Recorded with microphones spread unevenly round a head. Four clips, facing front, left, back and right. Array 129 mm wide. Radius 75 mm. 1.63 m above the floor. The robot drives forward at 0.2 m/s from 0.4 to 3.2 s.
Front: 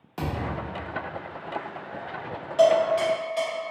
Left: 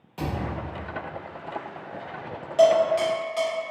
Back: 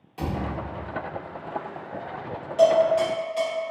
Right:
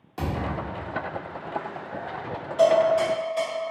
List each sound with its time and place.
0.2 s a thud: 50° right, 0.9 m; by 0.8 s 65° right, 0.9 m
2.6 s dishes clattering: 135° left, 1.1 m; by 3.5 s 140° left, 1.2 m